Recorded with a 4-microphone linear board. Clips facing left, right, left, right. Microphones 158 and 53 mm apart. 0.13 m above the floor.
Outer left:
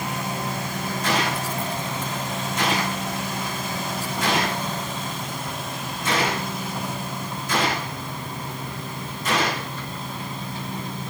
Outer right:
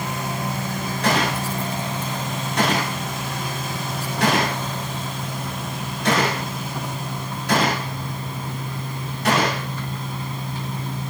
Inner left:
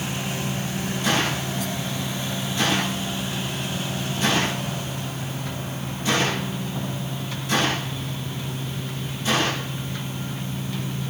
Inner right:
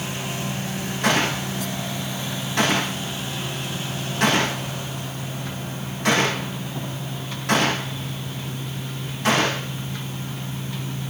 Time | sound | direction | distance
1.0 | a gunshot | 70° right (ahead or behind) | 9 m